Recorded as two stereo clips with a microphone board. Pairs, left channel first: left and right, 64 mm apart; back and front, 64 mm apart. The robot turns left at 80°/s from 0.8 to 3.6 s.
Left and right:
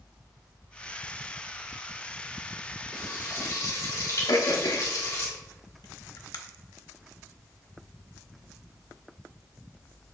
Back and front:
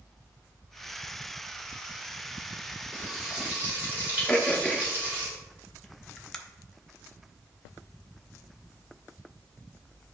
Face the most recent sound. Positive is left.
turn(degrees=95)